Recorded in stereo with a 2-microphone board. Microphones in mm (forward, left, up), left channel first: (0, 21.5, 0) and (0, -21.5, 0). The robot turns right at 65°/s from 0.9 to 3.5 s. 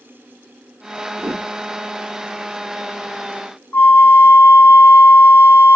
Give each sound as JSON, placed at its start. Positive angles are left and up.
{"t": 1.2, "sound": "a whoosh", "side_deg": -80, "distance_m": 2.5}
{"t": 3.7, "sound": "a flute", "side_deg": 65, "distance_m": 0.6}